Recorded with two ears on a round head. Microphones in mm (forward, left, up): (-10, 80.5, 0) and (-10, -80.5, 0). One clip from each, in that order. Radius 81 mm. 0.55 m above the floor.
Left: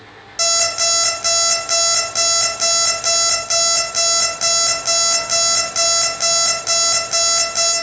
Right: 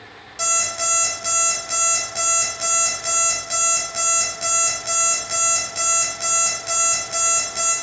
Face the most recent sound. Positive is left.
turn(degrees=20)  # may be behind; listen again after turning